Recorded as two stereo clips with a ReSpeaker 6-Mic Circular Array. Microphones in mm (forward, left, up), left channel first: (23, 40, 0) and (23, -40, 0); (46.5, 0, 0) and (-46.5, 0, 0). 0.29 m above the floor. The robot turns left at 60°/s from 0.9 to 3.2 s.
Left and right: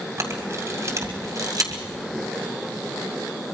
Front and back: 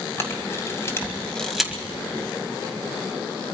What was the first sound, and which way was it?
A camera shutter, 50° right.